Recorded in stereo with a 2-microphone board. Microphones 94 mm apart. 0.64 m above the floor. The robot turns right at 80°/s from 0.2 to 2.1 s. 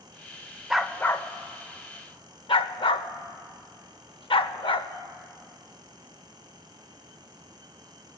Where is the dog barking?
5° right (ahead or behind), 0.6 m; by 4.9 s 70° left (ahead or behind), 0.6 m.